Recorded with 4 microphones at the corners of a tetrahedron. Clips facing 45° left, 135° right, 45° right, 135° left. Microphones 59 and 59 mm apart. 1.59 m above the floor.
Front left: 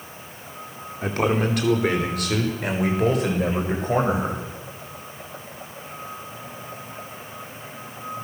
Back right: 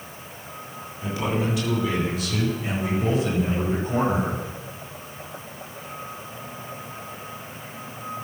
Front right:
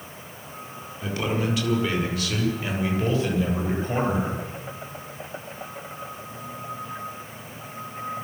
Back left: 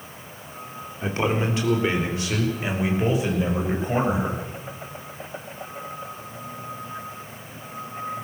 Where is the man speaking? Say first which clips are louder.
Front left 4 dB, back left 2 dB; 80° left, 4.5 m; by 4.4 s 55° left, 8.5 m.